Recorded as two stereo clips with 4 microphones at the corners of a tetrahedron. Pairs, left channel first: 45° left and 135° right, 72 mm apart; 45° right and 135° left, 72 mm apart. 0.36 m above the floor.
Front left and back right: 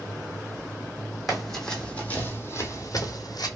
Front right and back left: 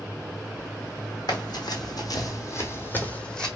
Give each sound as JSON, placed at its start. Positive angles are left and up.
{"t": 1.3, "sound": "running footsteps", "azimuth_deg": -45, "distance_m": 1.0}